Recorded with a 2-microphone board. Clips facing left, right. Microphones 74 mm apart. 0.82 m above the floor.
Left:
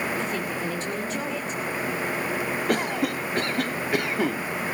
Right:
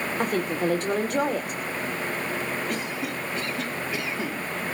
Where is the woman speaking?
55° right (ahead or behind), 2.5 m.